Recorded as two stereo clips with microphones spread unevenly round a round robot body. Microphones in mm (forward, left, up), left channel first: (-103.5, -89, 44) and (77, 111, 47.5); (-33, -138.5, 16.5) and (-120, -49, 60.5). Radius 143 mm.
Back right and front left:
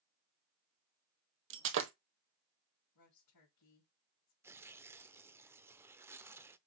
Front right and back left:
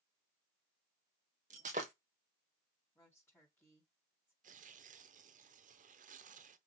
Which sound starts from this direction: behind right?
A woman speaking, at 3.0 s.